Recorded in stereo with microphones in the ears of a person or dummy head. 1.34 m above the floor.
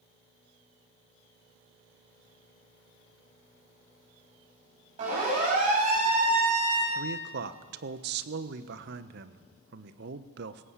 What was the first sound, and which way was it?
A siren, 40° right (ahead or behind).